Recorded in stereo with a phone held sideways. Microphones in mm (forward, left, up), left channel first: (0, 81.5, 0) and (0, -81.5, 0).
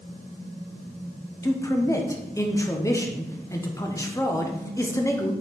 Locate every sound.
1.4 s a man speaking: 20° left (ahead or behind), 0.8 m